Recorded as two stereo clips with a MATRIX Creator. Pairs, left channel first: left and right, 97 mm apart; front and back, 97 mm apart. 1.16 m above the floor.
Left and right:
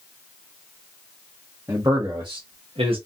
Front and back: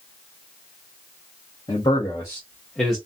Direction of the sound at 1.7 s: 30° right.